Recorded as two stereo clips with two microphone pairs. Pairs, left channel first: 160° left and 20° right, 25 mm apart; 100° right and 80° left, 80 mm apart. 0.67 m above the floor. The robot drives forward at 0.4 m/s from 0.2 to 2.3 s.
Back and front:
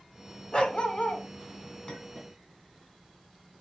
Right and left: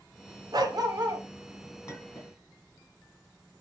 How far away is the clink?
About 2.5 m.